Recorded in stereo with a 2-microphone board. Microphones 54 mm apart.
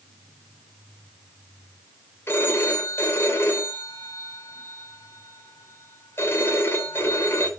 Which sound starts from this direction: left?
A phone ringing, at 2.3 s.